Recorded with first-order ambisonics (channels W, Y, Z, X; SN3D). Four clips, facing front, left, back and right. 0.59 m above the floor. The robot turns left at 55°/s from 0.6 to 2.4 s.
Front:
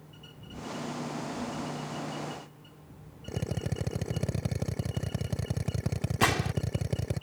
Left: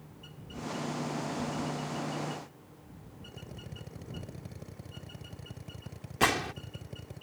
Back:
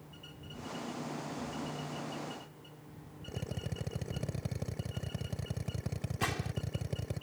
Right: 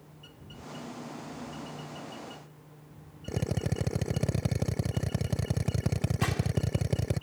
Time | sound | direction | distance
3.3 | a drill | 65° right | ?
6.2 | a gunshot | 40° left | ?